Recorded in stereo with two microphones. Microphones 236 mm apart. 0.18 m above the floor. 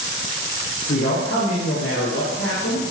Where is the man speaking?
80° left, 6.5 m.